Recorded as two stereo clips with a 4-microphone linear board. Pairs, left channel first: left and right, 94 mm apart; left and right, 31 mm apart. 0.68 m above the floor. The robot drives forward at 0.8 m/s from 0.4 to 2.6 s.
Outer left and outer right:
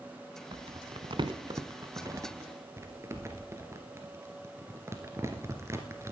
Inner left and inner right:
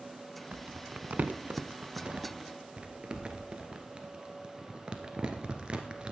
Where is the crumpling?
55° right (ahead or behind), 1.0 m; by 6.1 s 30° right (ahead or behind), 1.7 m.